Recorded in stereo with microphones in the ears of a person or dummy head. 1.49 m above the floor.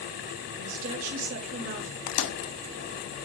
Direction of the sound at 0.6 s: 45° right (ahead or behind).